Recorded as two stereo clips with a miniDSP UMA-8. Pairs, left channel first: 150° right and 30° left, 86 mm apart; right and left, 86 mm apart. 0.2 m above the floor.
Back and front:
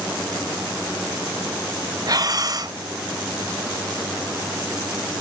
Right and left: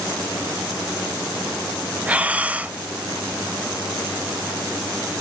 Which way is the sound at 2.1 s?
20° left.